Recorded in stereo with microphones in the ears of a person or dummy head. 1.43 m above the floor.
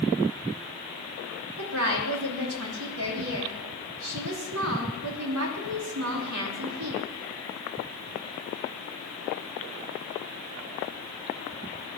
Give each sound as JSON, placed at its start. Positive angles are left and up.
{"t": 1.6, "sound": "a woman speaking", "side_deg": -75, "distance_m": 3.0}